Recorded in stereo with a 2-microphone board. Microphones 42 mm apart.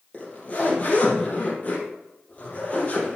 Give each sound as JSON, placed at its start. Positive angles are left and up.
{"t": 0.1, "sound": "a zipper", "side_deg": 35, "distance_m": 4.0}